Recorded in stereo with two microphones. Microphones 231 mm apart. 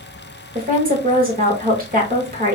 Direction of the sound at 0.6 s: 40° right (ahead or behind).